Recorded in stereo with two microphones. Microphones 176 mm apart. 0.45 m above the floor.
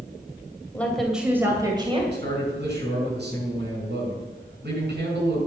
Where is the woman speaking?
10° left (ahead or behind), 2.5 m; by 2.0 s 30° right (ahead or behind), 3 m.